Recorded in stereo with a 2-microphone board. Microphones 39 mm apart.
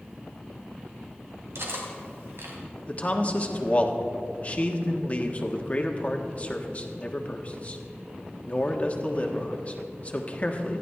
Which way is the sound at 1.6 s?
90° right.